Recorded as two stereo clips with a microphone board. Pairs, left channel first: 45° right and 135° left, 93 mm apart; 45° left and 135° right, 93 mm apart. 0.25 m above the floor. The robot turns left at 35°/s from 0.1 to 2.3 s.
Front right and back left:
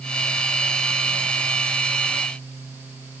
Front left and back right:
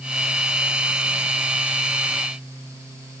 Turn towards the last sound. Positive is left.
No sound to turn to.